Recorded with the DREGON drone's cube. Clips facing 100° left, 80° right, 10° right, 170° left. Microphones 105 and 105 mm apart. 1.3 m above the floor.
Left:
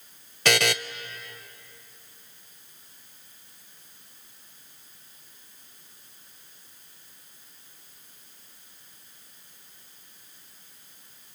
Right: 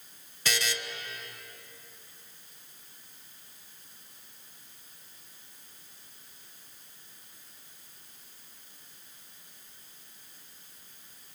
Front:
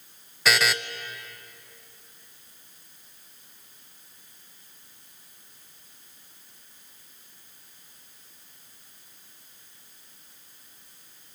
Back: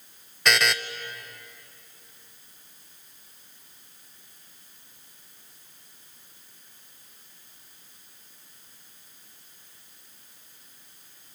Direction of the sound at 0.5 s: 75° left.